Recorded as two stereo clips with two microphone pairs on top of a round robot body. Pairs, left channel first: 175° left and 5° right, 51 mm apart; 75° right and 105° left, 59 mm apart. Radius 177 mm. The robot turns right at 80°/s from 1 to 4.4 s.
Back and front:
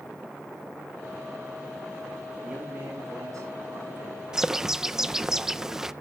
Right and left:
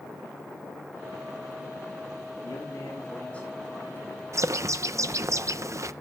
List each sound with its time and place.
2.4 s a man speaking: 80° right, 7.5 m; by 4.2 s 65° left, 7.5 m
4.3 s a bird: 75° left, 0.6 m; by 5.9 s 80° left, 0.6 m